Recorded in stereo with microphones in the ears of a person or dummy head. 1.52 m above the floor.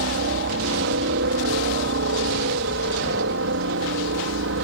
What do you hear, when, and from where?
0.0 s a helicopter: 55° right (ahead or behind); by 4.6 s 65° right (ahead or behind)